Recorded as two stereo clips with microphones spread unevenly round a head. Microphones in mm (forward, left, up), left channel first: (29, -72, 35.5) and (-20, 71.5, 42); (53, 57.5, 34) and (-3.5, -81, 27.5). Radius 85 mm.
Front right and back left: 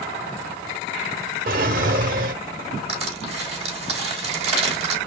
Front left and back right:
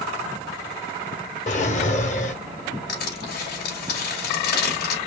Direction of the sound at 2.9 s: 60° left.